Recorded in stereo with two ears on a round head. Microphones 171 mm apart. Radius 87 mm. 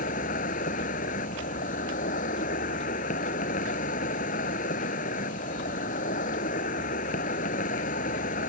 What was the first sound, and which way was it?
An insect, 40° left (ahead or behind).